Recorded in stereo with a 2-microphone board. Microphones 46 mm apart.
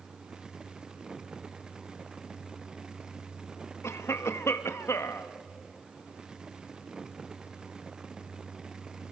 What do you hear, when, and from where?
3.8 s a cough: 80° left, 1.2 m